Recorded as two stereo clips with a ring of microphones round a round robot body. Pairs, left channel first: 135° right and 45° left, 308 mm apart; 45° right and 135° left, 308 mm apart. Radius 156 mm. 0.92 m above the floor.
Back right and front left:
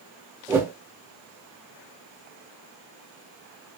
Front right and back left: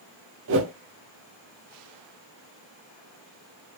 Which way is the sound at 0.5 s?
125° left.